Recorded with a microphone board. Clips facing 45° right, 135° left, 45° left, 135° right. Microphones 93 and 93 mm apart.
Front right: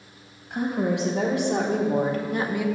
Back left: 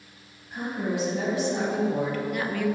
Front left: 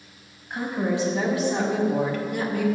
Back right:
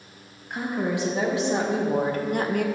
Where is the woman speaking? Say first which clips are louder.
Front right 5 dB, front left 1 dB; 60° right, 1.8 m; by 2.6 s 120° right, 0.7 m.